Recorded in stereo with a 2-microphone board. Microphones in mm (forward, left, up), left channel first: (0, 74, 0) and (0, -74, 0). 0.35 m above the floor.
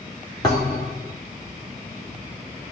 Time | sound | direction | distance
0.4 | a thud | 25° left (ahead or behind) | 2 m